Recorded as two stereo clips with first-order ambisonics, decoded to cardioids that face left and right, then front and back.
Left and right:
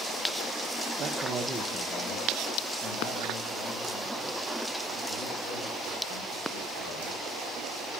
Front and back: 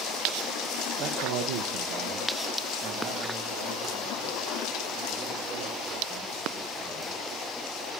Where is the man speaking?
135° right, 0.7 m; by 7.2 s 110° left, 5.5 m.